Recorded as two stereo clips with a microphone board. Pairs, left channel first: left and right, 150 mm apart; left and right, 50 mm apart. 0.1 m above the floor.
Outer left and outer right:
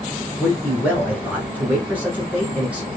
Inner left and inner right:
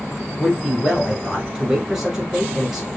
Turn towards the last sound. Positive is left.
turn(degrees=-10)  # may be behind; listen again after turning